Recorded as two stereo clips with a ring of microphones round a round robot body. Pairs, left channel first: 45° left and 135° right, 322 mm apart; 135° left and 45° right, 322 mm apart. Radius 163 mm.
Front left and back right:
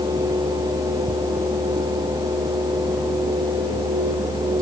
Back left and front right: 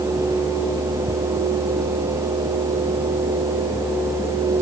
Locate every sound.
Only background noise.